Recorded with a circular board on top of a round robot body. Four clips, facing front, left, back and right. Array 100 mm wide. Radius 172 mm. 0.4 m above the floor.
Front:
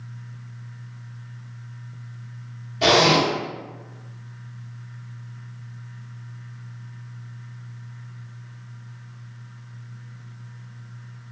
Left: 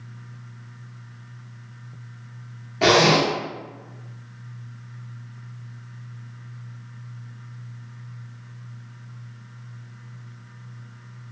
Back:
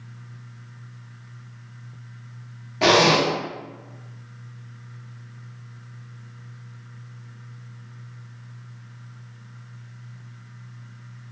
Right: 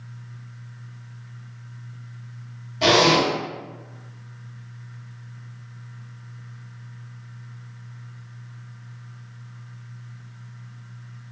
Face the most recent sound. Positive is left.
turn(degrees=135)